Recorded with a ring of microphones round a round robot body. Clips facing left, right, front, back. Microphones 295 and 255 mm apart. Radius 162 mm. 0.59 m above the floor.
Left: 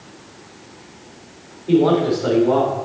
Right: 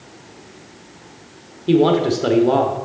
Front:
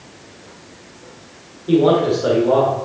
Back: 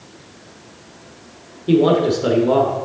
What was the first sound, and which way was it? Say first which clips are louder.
A man speaking: even, even; 125° right.